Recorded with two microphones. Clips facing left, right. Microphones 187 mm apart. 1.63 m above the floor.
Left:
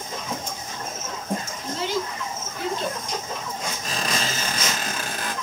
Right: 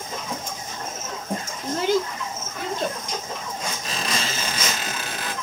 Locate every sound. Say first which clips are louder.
1.6 s a child speaking: right 7 dB; 45° right (ahead or behind), 0.5 m
3.8 s a squeak: left 2 dB; 50° left (ahead or behind), 1.2 m